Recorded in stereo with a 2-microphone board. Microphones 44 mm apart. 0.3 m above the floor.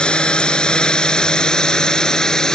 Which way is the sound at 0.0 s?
20° left (ahead or behind).